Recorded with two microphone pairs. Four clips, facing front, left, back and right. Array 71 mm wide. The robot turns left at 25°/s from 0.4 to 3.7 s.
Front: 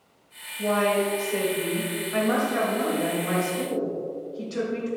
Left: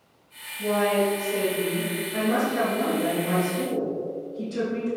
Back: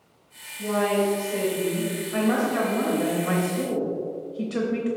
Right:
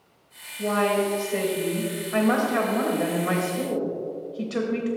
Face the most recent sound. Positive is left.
turn(degrees=-120)